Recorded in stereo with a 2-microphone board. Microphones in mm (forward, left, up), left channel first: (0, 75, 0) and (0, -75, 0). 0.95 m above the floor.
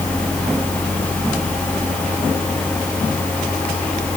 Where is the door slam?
I don't hear a door slam.